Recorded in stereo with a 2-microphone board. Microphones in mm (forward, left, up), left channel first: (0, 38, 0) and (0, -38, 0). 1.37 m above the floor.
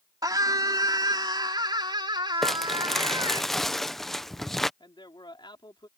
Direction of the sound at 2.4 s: 5° left (ahead or behind).